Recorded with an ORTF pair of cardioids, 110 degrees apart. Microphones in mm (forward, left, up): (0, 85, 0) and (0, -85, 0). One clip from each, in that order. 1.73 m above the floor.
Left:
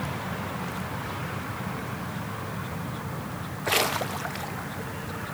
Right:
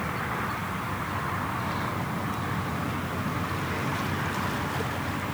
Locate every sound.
Only background noise.